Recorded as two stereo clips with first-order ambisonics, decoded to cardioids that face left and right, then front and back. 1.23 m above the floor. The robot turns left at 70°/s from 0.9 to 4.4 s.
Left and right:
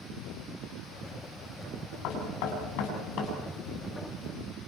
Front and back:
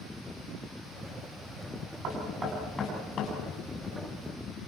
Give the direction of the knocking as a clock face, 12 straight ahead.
8 o'clock.